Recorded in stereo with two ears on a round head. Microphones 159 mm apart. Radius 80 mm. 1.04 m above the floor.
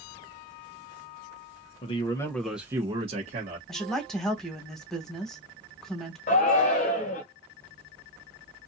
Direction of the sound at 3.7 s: Centre (ahead or behind).